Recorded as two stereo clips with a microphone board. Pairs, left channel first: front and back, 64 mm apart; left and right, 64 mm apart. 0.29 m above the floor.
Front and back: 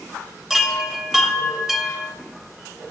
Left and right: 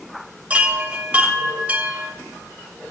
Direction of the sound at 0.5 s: 105° right.